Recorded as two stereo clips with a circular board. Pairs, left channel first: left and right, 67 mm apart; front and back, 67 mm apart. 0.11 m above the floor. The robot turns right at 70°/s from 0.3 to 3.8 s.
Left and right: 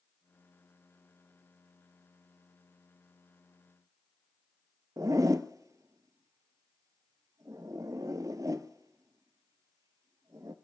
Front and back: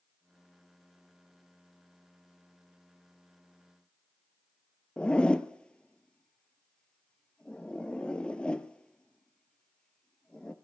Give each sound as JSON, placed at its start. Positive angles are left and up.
{"t": 5.0, "sound": "a zipper", "azimuth_deg": -75, "distance_m": 0.7}